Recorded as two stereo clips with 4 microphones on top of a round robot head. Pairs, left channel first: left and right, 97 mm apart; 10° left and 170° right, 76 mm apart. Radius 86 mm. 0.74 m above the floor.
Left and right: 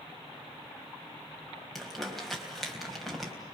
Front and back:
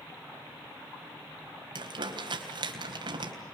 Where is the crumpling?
Straight behind, 3.5 m.